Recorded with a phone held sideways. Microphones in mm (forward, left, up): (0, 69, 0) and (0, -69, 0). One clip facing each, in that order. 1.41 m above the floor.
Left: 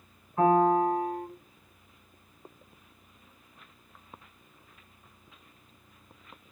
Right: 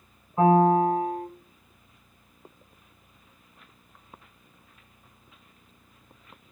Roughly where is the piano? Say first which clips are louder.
Right 3 dB; right.